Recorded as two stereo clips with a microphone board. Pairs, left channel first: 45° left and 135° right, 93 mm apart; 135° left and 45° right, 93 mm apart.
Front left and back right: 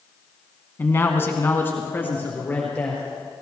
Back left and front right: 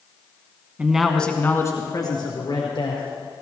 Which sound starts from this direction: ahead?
A man speaking, at 0.8 s.